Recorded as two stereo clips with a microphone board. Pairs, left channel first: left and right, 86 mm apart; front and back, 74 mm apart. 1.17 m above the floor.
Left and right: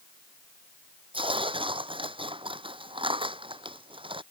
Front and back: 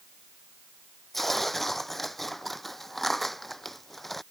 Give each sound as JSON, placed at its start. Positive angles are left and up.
{"t": 1.1, "sound": "tearing paper", "azimuth_deg": -90}